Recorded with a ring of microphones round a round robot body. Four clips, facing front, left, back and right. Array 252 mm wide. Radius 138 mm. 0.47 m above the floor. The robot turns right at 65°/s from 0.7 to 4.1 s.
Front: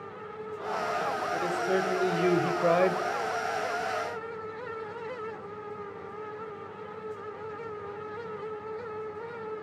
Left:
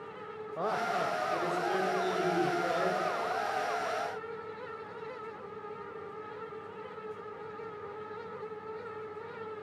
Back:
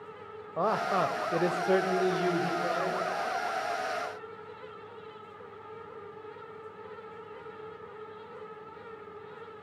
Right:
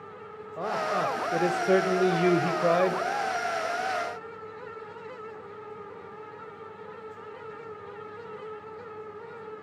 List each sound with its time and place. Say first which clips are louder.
0.6 s a man speaking: right 3 dB, back 4 dB; 175° right, 2 m; by 3.0 s 25° right, 2 m